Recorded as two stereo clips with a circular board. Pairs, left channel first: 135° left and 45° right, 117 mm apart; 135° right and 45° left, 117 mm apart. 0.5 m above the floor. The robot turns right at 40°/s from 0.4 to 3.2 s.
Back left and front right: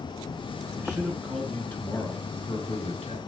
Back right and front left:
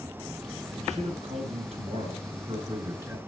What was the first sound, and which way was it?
A man speaking, 20° left.